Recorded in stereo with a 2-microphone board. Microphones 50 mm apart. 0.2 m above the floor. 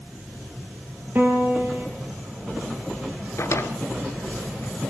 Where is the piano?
45° right (ahead or behind), 5 m.